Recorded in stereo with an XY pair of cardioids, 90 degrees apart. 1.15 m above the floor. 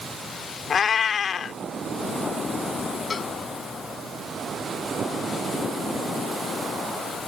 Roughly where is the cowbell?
Ahead left.